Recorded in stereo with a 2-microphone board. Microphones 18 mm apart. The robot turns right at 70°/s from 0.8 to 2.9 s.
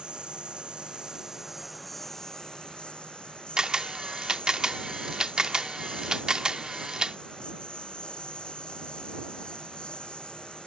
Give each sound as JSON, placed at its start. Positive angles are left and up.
{"t": 0.0, "sound": "a lawn mower", "azimuth_deg": -75}
{"t": 3.6, "sound": "a camera shutter", "side_deg": -45}